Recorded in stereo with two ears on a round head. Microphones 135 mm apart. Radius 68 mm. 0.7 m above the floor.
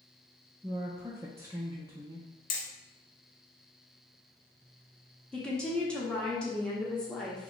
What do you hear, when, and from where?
0.6 s a woman speaking: 15° right (ahead or behind), 0.5 m
2.5 s hammering: 60° left (ahead or behind), 0.8 m
5.3 s a woman speaking: 10° left (ahead or behind), 0.8 m